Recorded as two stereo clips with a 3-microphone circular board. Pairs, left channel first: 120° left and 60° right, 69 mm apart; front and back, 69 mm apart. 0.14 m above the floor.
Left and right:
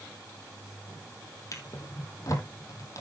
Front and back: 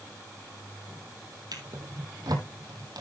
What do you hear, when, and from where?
1.5 s a drawer: 160° left, 1.8 m